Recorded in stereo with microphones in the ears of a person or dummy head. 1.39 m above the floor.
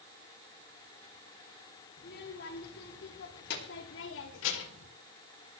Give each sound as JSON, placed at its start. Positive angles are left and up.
{"t": 2.0, "sound": "a child speaking", "side_deg": 60, "distance_m": 4.0}